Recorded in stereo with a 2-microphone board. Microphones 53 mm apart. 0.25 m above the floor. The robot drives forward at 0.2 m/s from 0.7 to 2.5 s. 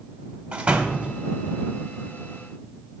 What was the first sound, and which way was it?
A door slam, 20° right (ahead or behind).